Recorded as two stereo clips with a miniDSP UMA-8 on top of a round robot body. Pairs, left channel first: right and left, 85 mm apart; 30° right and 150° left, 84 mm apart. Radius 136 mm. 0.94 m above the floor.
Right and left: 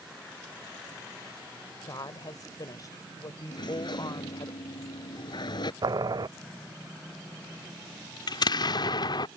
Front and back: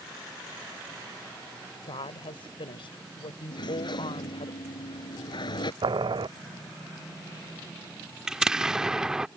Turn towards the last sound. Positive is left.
turn(degrees=-125)